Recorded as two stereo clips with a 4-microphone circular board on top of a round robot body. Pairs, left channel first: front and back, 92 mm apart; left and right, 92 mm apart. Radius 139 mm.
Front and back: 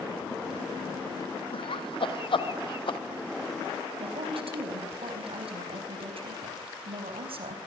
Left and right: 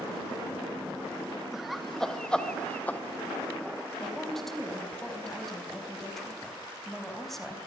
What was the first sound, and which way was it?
Laughter, 5° right.